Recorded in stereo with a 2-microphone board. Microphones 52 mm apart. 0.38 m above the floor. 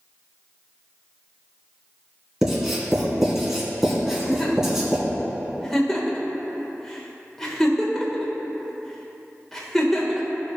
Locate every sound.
2.4 s writing: 10° right (ahead or behind), 2 m
4.1 s a giggle: 5° left (ahead or behind), 1.3 m